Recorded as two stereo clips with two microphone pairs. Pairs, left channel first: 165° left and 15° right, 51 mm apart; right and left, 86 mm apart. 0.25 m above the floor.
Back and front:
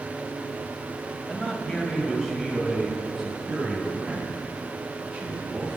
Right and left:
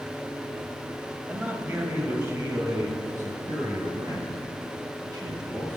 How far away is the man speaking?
About 1.3 m.